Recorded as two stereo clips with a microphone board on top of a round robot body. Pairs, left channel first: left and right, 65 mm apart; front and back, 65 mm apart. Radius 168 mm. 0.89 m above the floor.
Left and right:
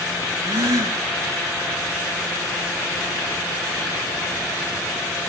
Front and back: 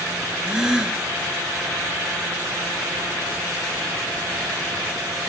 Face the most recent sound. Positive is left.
turn(degrees=-100)